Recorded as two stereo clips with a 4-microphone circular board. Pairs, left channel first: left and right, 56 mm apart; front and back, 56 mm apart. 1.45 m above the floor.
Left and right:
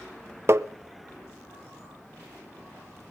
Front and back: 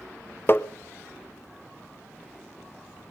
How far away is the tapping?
About 0.8 m.